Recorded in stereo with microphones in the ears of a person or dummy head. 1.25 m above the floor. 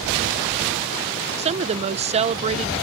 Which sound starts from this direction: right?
A woman speaking, at 1.4 s.